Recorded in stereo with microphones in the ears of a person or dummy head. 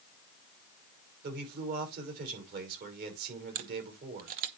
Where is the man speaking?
50° right (ahead or behind), 6 m.